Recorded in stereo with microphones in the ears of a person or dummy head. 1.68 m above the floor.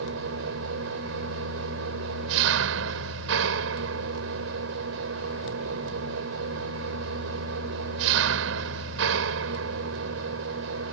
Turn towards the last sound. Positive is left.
turn(degrees=-80)